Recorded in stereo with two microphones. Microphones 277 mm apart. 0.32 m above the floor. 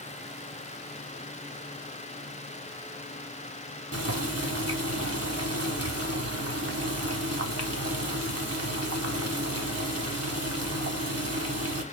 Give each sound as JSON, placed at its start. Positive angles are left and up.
{"t": 3.9, "sound": "boiling", "side_deg": -60, "distance_m": 0.9}